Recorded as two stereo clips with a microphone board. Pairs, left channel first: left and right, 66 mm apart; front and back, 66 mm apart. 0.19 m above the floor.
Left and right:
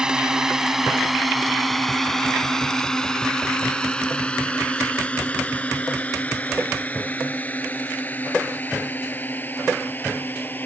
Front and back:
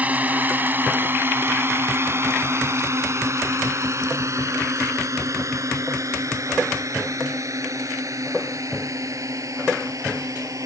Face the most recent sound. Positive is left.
turn(degrees=150)